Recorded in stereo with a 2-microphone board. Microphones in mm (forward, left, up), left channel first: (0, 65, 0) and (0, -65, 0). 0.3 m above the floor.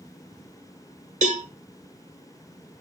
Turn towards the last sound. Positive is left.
turn(degrees=-85)